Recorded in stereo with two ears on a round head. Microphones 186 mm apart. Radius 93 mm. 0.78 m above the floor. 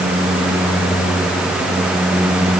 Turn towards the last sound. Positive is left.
No sound to turn to.